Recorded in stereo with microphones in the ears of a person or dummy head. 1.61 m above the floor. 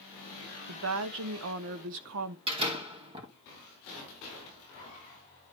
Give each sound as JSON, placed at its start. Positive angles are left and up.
{"t": 0.7, "sound": "a woman speaking", "side_deg": -70, "distance_m": 0.9}
{"t": 2.5, "sound": "a door slam", "side_deg": -25, "distance_m": 2.0}